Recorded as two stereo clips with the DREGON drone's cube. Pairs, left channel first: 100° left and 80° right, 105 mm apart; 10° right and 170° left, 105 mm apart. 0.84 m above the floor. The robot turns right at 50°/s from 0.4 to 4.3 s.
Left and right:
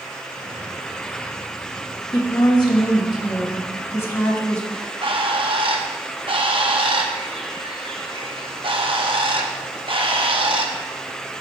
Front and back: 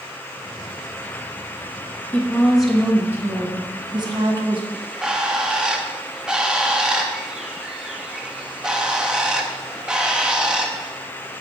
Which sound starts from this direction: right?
A bird, at 4.7 s.